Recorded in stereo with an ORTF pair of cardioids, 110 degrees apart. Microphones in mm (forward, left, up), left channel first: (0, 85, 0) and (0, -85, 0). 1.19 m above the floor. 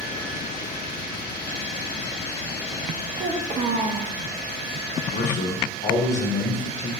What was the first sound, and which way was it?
A child speaking, 35° right.